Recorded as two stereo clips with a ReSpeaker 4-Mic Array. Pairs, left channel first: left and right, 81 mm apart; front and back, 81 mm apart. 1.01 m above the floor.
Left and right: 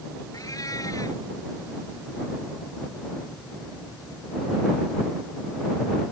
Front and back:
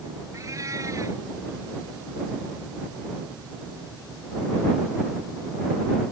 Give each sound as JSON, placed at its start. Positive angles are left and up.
{"t": 0.3, "sound": "a cat meowing", "azimuth_deg": 130}